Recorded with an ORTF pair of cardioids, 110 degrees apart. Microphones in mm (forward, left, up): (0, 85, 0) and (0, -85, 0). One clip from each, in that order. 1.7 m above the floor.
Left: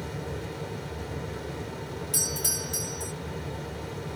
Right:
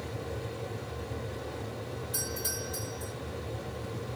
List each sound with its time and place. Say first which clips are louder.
0.0 s a fan: left 2 dB; 35° left, 1.2 m
2.1 s a doorbell: left 7 dB; 70° left, 2.0 m